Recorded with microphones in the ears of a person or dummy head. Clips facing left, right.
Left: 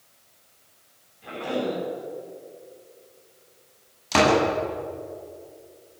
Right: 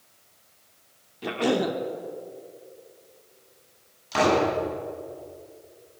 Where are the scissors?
I don't hear scissors.